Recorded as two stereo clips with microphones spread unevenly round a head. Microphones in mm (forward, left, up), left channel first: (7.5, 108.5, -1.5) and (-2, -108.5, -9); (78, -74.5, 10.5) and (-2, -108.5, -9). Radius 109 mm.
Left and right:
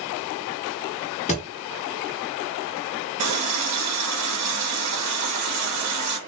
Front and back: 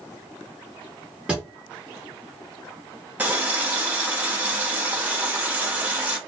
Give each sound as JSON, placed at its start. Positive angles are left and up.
{"t": 1.3, "sound": "a thud", "azimuth_deg": 110, "distance_m": 0.6}
{"t": 3.2, "sound": "a running tap", "azimuth_deg": -85, "distance_m": 1.0}